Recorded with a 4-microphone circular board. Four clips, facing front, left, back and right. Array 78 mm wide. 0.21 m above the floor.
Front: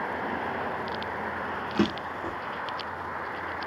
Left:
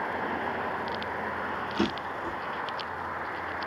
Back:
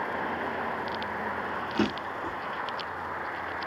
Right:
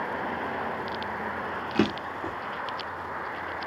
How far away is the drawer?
About 1.5 m.